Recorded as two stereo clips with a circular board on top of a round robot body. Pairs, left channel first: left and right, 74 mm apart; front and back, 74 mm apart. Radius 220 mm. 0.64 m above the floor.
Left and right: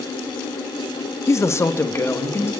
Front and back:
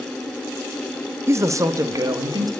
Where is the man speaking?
130° left, 1.0 m; by 2.5 s 145° left, 2 m.